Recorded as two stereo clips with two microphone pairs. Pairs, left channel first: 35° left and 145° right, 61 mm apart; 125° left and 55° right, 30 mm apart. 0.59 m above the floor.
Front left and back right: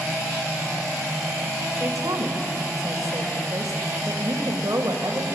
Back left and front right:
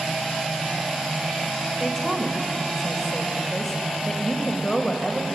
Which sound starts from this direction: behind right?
A woman speaking, at 1.8 s.